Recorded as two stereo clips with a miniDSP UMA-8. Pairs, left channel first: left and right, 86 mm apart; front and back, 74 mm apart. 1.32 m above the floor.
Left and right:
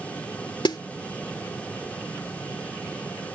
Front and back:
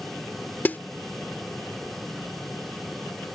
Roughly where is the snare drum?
Ahead left.